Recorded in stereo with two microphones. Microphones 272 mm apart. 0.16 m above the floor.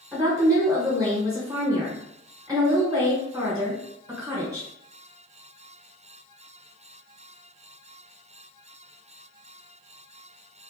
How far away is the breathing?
I don't hear breathing.